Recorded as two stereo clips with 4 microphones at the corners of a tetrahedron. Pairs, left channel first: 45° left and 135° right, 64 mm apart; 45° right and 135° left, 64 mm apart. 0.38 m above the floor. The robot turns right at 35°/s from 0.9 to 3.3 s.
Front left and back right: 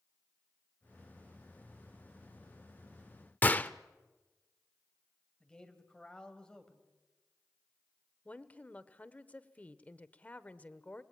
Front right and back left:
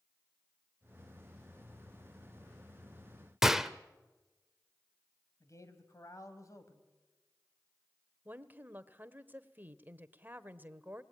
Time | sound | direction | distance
3.4 | a gunshot | 60° left | 0.8 m
5.4 | a man speaking | 30° right | 2.5 m
8.2 | a woman speaking | 100° left | 1.1 m